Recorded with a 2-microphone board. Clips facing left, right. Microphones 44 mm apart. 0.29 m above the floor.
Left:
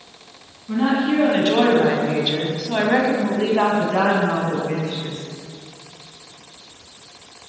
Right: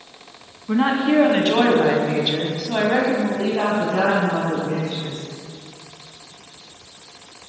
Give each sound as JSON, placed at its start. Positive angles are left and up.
{"t": 0.7, "sound": "a woman speaking", "side_deg": -35, "distance_m": 2.0}